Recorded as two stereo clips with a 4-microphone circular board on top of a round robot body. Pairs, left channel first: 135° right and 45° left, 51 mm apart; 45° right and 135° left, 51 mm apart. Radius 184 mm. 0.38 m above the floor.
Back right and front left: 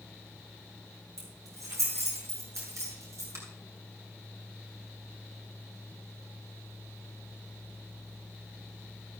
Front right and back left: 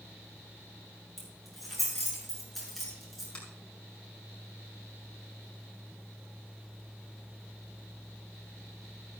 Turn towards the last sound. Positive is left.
turn(degrees=20)